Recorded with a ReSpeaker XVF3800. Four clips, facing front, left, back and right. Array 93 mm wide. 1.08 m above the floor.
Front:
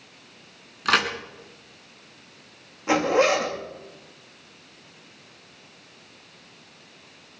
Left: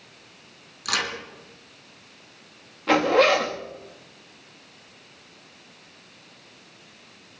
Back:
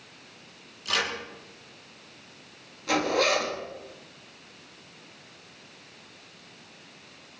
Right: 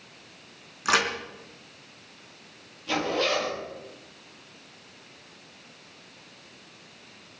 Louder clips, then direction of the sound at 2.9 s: Left 8 dB, front 5 dB; 65° left.